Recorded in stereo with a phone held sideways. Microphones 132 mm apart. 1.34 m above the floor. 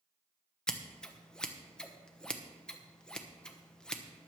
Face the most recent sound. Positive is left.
turn(degrees=5)  # may be behind; listen again after turning